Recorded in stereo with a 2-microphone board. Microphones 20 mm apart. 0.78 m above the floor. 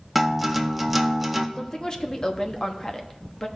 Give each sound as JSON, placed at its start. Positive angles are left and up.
{"t": 0.1, "sound": "a guitar", "side_deg": -5, "distance_m": 0.6}
{"t": 1.6, "sound": "a woman speaking", "side_deg": 35, "distance_m": 0.8}